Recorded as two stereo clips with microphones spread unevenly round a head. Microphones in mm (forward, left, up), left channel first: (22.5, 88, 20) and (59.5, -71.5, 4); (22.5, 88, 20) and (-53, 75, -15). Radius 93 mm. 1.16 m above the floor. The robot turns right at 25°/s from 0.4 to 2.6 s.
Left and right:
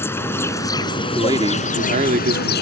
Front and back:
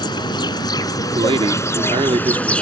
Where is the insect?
30° left; by 2.6 s 85° left.